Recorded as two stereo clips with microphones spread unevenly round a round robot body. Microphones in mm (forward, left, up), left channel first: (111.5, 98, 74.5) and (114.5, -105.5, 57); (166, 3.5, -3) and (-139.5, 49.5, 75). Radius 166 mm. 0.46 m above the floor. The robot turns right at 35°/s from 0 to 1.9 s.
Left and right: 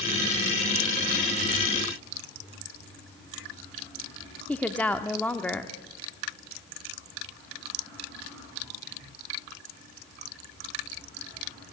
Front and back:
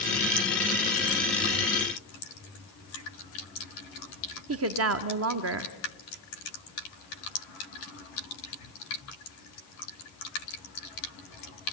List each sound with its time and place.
4.5 s a woman speaking: 175° left, 1.3 m